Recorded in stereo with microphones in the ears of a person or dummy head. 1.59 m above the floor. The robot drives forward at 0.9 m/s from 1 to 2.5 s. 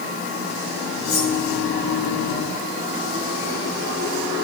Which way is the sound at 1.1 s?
45° left (ahead or behind).